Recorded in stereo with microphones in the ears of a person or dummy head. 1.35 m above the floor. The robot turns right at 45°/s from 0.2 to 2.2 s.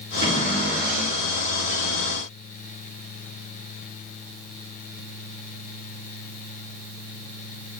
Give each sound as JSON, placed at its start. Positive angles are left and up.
{"t": 0.2, "sound": "a cupboard door", "azimuth_deg": -135, "distance_m": 3.5}